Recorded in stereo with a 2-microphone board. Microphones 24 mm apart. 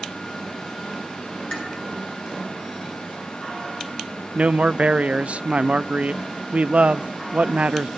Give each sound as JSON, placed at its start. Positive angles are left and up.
{"t": 1.5, "sound": "dishes clattering", "side_deg": 45, "distance_m": 10.0}
{"t": 4.3, "sound": "a man speaking", "side_deg": -70, "distance_m": 0.6}